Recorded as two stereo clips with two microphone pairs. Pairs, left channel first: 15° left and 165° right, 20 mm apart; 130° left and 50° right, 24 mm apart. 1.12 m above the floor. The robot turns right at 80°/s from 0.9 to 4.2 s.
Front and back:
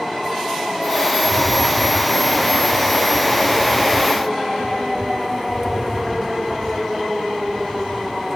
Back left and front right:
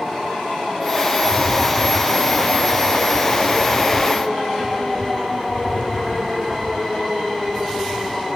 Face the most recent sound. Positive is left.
turn(degrees=155)